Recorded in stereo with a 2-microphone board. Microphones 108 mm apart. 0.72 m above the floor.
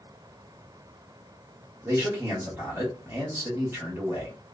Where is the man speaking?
25° right (ahead or behind), 1.1 m.